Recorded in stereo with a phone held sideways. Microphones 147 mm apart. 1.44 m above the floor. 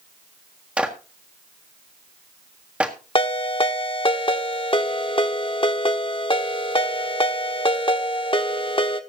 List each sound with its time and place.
0.8 s a clap: 10° right (ahead or behind), 1.7 m
3.1 s a ringtone: 35° left (ahead or behind), 1.2 m